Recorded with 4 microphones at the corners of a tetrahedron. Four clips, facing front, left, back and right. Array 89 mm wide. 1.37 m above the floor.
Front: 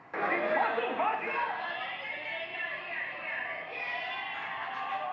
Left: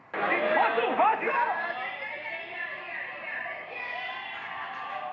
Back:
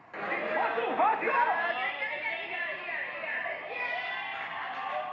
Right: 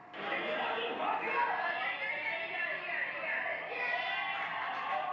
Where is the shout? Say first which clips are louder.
Left 11 dB, front 2 dB; 70° left, 0.8 m; by 5.0 s 165° right, 2.5 m.